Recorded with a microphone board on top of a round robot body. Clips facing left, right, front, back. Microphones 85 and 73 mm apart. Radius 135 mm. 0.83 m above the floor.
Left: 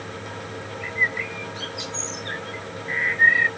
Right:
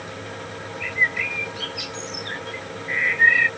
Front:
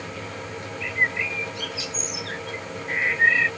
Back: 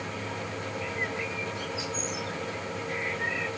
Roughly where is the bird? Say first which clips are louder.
Right 2 dB, front 10 dB; ahead left.